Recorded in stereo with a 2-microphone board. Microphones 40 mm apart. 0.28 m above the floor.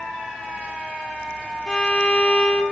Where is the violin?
25° left (ahead or behind), 0.8 m.